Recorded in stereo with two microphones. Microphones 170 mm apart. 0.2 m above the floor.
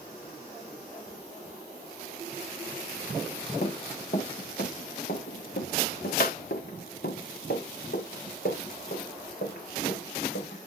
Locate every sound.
3.6 s running footsteps: 45° left (ahead or behind), 3.5 m; by 10.7 s 70° left (ahead or behind), 8.5 m